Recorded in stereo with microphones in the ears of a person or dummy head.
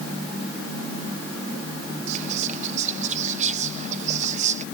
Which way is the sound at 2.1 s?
45° right (ahead or behind).